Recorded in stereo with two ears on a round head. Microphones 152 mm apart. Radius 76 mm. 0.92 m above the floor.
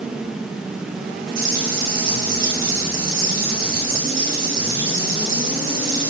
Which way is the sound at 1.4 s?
55° right (ahead or behind).